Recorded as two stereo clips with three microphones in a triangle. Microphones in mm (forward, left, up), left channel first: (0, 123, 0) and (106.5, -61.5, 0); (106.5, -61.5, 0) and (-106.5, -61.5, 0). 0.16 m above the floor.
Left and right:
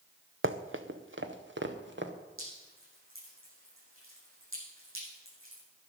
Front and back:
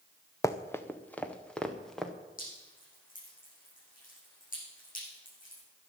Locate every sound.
0.4 s running footsteps: 75° right, 1.1 m; by 2.1 s 90° right, 2 m
2.4 s dripping: 50° right, 9 m